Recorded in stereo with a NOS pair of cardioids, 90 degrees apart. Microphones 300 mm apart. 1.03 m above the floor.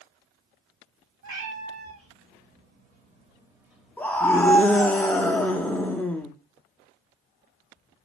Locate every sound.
1.2 s a cat meowing: 55° right, 1.7 m; by 4.9 s 30° left, 1.0 m
4.0 s a scream: 5° left, 0.6 m